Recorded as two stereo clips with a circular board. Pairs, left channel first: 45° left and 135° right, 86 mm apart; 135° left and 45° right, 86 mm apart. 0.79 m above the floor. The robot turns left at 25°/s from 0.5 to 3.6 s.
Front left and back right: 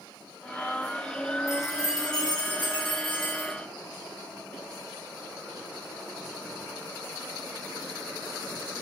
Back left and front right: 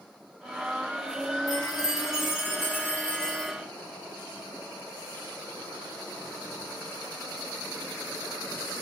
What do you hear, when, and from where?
1.5 s a chime: 100° left, 0.7 m; by 3.5 s 50° left, 0.7 m